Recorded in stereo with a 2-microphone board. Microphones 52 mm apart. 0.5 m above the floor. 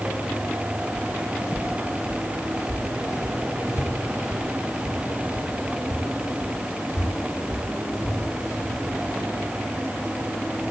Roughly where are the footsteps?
Left.